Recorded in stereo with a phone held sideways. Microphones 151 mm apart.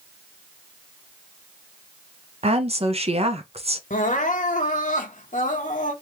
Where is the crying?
55° left (ahead or behind), 0.9 m.